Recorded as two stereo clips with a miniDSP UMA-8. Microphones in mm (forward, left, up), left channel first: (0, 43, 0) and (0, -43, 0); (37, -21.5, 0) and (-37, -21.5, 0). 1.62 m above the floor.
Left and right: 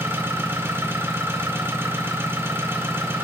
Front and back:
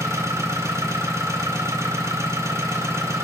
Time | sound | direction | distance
0.0 | an engine running | 145° right | 2 m